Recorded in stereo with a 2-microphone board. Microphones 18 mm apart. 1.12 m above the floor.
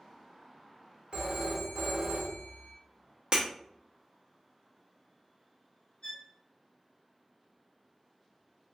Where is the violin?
50° left (ahead or behind), 1.4 m.